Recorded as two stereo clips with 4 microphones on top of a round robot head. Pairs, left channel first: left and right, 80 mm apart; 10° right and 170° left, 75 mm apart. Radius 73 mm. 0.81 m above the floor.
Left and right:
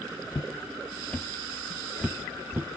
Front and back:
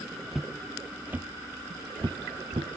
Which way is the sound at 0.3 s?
85° left.